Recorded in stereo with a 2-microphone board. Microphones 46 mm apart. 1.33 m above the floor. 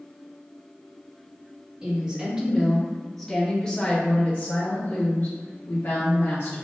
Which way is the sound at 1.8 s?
20° right (ahead or behind).